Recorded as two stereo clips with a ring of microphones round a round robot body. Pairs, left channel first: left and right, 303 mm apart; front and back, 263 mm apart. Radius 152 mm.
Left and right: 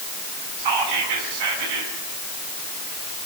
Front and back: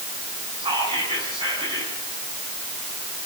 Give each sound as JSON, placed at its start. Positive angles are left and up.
{"t": 0.6, "sound": "whispering", "azimuth_deg": -105, "distance_m": 6.5}